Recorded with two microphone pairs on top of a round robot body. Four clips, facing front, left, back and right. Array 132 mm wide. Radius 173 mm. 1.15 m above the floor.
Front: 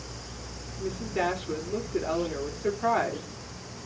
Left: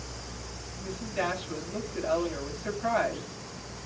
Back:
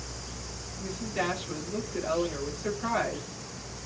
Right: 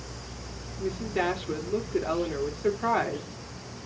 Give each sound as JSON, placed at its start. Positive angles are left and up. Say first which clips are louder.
{"t": 0.8, "sound": "a woman speaking", "louder": "right 4 dB, front 3 dB", "azimuth_deg": -60, "distance_m": 4.0}